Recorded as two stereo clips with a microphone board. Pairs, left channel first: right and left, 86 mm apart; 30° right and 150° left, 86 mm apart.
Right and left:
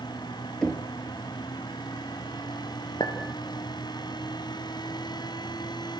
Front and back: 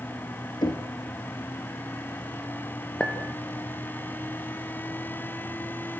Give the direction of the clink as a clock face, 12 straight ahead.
4 o'clock.